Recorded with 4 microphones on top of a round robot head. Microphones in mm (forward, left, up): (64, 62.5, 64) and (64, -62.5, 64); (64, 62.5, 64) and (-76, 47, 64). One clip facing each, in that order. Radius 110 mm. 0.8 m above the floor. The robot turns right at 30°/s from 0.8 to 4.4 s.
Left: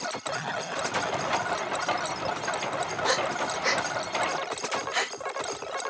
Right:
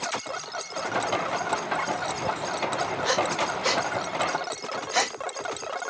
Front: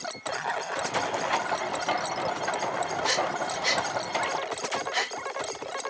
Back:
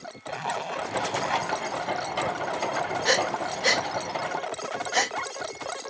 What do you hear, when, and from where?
0.3 s a zipper: 120° left; by 1.6 s 140° left
3.0 s breathing: straight behind; by 5.2 s 140° right